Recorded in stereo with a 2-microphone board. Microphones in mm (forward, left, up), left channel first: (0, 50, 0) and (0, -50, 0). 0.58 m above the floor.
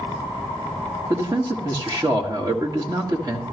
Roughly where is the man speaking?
Right.